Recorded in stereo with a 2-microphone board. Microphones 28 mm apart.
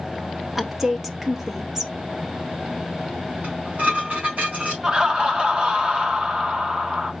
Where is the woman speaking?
15° right (ahead or behind), 0.6 m.